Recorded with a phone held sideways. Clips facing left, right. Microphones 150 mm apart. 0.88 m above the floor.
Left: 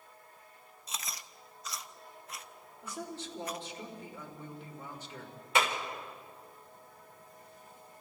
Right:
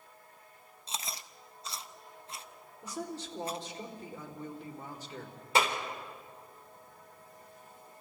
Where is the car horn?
I don't hear a car horn.